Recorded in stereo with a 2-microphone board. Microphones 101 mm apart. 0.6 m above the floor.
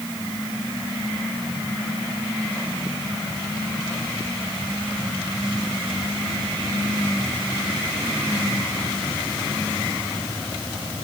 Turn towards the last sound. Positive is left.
No sound to turn to.